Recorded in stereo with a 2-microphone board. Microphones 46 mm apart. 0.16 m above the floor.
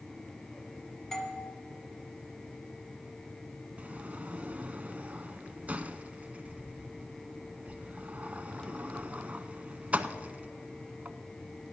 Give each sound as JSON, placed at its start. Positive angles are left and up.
{"t": 1.1, "sound": "a doorbell", "side_deg": 10, "distance_m": 1.4}
{"t": 3.8, "sound": "a sliding door", "side_deg": -30, "distance_m": 0.6}